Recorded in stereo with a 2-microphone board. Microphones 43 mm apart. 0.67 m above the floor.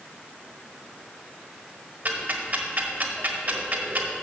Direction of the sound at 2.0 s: 45° right (ahead or behind).